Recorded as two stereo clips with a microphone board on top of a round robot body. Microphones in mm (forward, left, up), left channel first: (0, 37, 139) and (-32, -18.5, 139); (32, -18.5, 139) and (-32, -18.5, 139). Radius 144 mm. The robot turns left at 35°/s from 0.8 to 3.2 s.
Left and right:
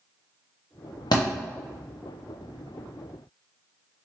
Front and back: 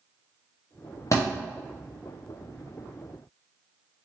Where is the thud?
45° left, 0.5 m; by 1.2 s 40° left, 0.5 m.